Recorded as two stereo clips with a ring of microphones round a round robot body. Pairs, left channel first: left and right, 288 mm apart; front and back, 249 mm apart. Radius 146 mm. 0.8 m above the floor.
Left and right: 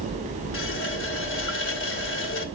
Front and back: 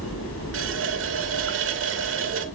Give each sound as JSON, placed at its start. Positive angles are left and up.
{"t": 0.5, "sound": "a running tap", "azimuth_deg": 140, "distance_m": 1.8}